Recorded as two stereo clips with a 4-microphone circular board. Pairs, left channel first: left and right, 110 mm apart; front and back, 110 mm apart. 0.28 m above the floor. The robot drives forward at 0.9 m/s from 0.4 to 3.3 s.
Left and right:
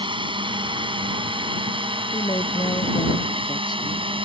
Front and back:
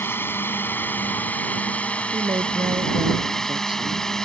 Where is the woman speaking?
135° left; by 4.2 s 140° left.